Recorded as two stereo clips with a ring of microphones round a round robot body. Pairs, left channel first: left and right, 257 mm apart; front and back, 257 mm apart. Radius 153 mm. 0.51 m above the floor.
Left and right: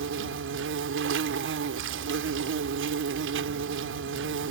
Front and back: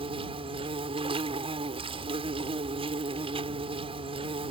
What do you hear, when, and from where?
0.0 s an insect: 115° right